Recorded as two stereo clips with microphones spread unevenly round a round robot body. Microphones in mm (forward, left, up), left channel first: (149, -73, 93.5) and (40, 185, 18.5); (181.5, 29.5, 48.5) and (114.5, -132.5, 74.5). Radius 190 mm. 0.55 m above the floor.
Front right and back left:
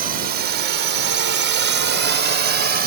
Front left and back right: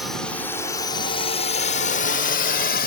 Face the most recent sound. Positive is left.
turn(degrees=70)